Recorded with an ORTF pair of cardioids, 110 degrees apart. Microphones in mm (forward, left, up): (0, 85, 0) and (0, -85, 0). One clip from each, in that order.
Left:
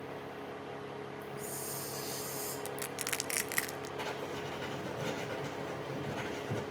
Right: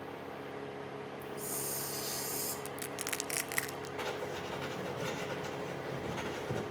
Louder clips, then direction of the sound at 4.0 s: Right 1 dB; 20° right.